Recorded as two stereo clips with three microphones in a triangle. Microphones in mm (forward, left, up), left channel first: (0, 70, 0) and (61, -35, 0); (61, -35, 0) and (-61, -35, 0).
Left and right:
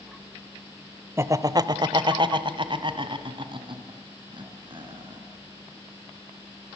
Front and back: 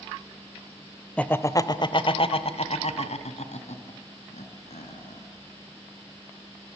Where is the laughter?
65° right, 0.9 m; by 5.2 s 15° right, 4 m.